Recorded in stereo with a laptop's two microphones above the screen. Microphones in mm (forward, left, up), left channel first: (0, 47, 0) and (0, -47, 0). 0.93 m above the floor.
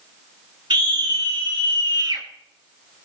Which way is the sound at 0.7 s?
65° right (ahead or behind).